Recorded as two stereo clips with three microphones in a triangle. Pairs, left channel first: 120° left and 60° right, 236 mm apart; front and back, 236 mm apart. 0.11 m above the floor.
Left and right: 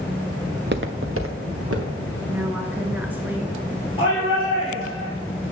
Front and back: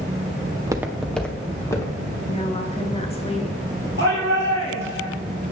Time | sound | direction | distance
0.5 | footsteps | 120° right | 0.7 m
2.3 | a woman speaking | 15° left | 1.3 m
4.0 | a shout | 175° right | 3 m